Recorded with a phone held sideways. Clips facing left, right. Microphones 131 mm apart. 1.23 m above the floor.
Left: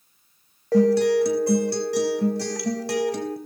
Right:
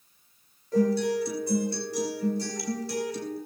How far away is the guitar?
About 3.5 m.